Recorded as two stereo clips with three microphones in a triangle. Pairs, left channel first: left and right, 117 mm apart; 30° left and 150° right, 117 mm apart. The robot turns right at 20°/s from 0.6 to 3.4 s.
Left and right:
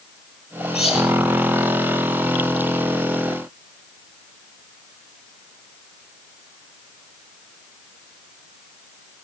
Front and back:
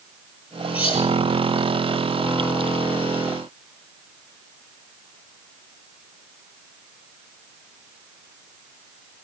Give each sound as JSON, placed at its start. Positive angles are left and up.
{"t": 0.7, "sound": "cutlery clinking", "azimuth_deg": 60, "distance_m": 7.0}